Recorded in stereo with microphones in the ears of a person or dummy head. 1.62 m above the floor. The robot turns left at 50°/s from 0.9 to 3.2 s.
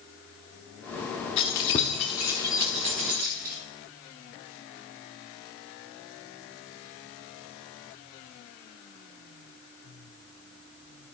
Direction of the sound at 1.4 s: 20° left (ahead or behind).